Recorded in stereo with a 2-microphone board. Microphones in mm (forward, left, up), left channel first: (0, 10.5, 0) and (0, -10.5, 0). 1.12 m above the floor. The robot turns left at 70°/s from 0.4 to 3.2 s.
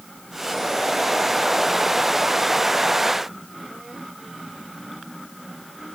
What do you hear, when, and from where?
Only background noise.